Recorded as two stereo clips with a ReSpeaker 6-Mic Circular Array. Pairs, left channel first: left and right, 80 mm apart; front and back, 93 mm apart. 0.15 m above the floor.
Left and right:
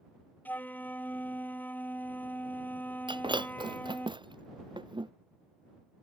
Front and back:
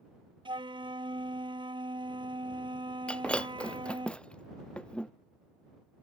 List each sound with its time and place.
0.5 s a flute: 155° left
3.1 s breaking glass: 80° right